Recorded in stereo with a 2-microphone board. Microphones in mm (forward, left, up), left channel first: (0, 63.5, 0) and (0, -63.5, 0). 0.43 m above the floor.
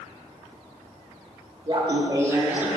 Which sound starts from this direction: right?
Laughter, at 1.7 s.